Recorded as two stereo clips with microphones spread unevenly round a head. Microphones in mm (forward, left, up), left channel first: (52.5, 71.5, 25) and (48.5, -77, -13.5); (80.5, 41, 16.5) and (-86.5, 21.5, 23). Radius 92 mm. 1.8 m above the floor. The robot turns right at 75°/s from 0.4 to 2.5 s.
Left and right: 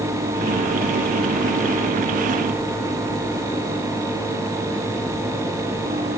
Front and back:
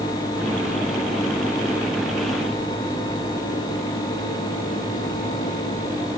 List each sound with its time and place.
Only background noise.